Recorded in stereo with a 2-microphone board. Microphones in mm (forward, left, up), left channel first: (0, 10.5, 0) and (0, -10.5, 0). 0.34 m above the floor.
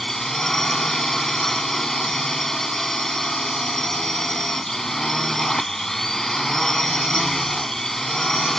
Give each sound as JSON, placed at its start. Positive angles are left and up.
{"t": 0.0, "sound": "a drone", "side_deg": 20}